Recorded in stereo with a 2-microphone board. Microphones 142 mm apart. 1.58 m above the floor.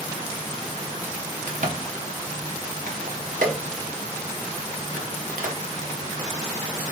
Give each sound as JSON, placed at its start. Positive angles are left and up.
{"t": 1.5, "sound": "a crack", "side_deg": -70, "distance_m": 1.0}